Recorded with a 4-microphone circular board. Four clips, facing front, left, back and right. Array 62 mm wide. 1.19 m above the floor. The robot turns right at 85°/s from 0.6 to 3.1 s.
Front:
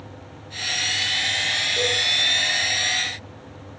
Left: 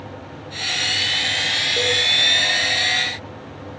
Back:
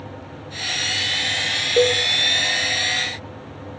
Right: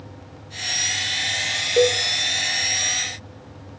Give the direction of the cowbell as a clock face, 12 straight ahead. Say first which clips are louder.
Right 6 dB, back 10 dB; 5 o'clock.